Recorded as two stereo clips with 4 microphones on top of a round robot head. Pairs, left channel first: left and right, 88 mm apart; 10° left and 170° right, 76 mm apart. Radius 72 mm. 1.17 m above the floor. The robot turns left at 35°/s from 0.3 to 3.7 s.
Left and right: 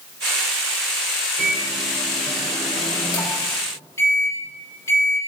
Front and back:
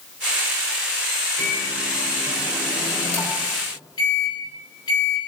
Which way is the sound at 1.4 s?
115° left.